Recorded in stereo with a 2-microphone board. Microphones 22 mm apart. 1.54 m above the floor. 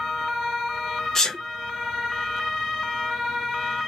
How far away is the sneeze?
About 1.2 m.